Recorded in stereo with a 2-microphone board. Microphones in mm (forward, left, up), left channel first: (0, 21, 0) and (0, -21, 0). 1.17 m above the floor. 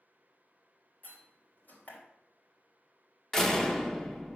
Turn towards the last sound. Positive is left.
turn(degrees=15)  # may be behind; listen again after turning